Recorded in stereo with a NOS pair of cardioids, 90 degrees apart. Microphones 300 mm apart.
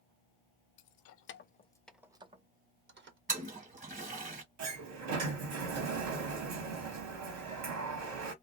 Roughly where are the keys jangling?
Left.